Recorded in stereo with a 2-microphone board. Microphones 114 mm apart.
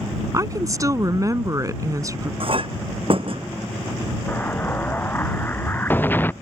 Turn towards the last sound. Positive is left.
turn(degrees=15)  # may be behind; listen again after turning